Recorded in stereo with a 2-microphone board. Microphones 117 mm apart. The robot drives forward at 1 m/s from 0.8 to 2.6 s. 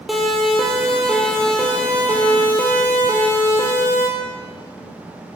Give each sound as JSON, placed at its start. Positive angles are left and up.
{"t": 0.1, "sound": "a siren", "side_deg": 0, "distance_m": 5.0}